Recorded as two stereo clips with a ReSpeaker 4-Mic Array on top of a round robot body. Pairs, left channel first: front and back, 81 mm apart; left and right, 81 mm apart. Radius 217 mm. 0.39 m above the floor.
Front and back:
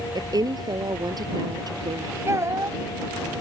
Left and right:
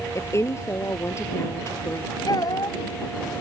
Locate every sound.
0.1 s a woman speaking: 145° left
2.3 s a child speaking: 125° left